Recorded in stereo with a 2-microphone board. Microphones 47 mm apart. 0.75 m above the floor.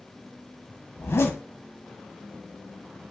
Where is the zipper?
65° left (ahead or behind), 1.0 m.